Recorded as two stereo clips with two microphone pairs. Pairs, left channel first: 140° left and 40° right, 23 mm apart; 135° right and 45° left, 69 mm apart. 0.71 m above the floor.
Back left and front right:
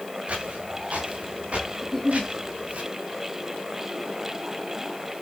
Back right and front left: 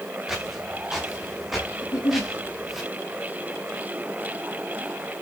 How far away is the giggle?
About 1.3 m.